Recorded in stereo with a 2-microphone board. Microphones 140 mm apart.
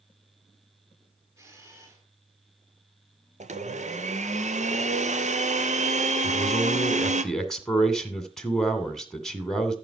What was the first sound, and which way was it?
A camera shutter, 20° right (ahead or behind).